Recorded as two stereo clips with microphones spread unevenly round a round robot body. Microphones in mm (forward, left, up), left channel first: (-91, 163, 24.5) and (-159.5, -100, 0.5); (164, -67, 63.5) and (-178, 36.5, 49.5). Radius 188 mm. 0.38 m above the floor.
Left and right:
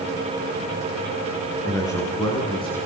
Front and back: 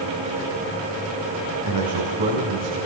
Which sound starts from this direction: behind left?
A man speaking, at 1.6 s.